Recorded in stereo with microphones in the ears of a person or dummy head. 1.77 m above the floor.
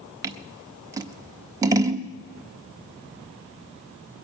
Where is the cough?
No cough in this recording.